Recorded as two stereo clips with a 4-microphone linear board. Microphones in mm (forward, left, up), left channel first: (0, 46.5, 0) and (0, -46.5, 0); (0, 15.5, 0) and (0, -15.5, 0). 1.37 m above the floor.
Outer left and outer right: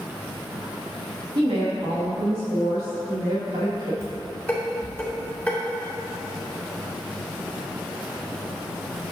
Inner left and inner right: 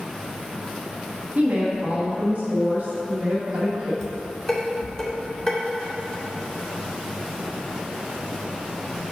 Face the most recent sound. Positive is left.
turn(degrees=10)  # may be behind; listen again after turning